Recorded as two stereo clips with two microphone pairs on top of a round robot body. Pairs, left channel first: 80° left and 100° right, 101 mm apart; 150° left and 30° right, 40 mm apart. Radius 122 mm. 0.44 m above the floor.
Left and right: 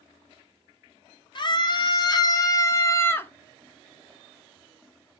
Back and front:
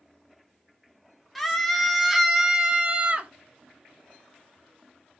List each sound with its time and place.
1.4 s a scream: 70° left, 2.5 m; by 3.3 s 20° left, 1.8 m